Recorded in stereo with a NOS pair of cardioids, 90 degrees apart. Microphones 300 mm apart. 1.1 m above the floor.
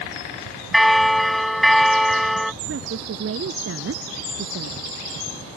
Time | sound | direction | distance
0.7 | a bell | straight ahead | ?
2.7 | a woman speaking | 50° right | ?